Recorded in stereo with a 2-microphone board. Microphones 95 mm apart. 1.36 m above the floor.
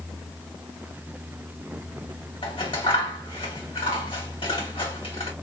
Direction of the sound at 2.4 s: 80° left.